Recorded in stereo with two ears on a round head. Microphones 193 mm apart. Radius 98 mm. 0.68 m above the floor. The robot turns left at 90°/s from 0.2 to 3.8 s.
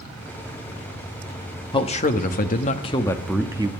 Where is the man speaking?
145° left, 1.0 m; by 3.7 s 35° right, 1.0 m.